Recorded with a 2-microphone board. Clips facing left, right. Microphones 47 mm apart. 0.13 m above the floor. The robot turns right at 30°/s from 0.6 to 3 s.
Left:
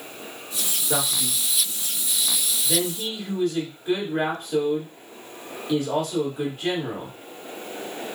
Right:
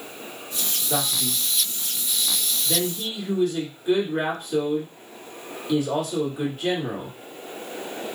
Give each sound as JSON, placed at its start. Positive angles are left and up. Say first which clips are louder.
{"t": 0.9, "sound": "a man speaking", "louder": "even", "side_deg": 30, "distance_m": 1.7}